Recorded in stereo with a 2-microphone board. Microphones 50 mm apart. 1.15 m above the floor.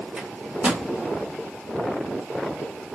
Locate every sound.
0.2 s a microwave: 20° right (ahead or behind), 1.0 m